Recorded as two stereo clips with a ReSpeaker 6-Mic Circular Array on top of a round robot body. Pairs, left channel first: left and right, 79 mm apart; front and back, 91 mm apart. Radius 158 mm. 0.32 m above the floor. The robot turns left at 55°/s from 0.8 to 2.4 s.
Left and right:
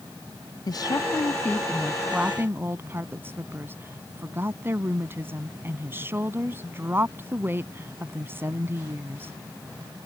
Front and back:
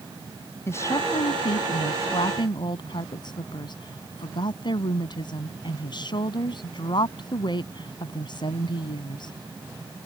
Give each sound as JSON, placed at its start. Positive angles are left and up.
{"t": 0.7, "sound": "a woman speaking", "azimuth_deg": 60}